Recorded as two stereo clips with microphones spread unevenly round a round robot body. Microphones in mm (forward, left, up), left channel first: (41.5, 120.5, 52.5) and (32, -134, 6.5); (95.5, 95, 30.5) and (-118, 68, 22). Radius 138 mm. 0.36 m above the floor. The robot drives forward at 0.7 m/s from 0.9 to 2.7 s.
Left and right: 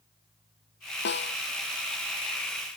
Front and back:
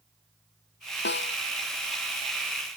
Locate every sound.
1.1 s a snare drum: 40° left